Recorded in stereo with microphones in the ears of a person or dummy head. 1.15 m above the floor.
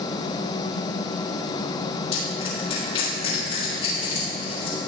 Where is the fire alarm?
No fire alarm in this recording.